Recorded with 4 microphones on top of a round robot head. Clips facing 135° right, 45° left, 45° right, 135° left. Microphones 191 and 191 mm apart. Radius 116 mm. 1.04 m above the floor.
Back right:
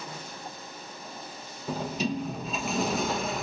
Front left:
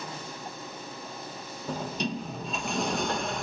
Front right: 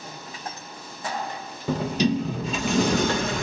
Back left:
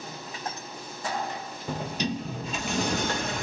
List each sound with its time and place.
1.7 s a sliding door: 50° right, 0.7 m